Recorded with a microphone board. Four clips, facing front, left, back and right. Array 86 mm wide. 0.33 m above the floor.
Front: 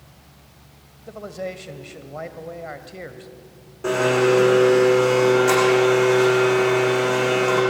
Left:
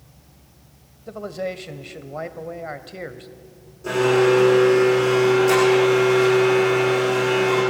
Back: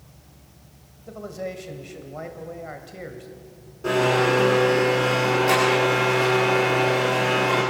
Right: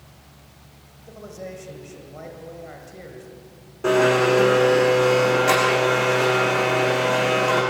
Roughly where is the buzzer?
No buzzer in this recording.